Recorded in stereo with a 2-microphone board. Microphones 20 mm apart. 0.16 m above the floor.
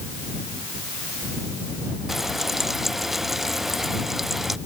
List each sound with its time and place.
2.1 s frying: 10° right (ahead or behind)